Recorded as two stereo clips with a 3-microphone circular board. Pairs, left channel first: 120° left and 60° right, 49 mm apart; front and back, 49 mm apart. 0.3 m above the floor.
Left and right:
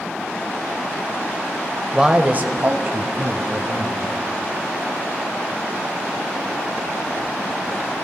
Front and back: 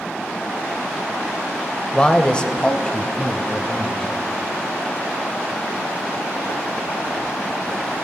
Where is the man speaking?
10° left, 0.9 m; by 4.1 s 75° right, 3 m.